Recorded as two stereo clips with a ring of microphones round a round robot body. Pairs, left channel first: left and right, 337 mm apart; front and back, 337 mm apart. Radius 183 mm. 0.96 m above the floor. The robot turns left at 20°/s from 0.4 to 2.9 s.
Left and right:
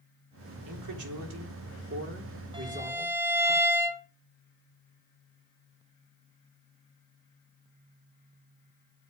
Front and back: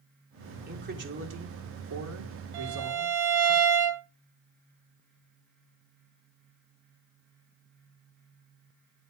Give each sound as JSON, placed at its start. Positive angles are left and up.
{"t": 0.7, "sound": "a man speaking", "azimuth_deg": -115, "distance_m": 3.5}
{"t": 2.5, "sound": "a violin", "azimuth_deg": -165, "distance_m": 2.5}